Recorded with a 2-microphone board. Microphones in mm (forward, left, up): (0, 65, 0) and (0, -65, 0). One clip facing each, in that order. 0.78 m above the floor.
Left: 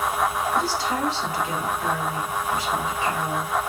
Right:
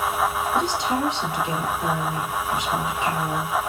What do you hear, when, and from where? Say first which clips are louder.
0.5 s a woman speaking: right 1 dB; 20° right (ahead or behind), 2.5 m